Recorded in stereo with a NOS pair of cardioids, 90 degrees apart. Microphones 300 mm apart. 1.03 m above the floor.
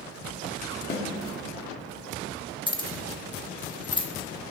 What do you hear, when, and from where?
0.9 s a snare drum: 35° left, 2.5 m
2.7 s keys jangling: 15° left, 1.2 m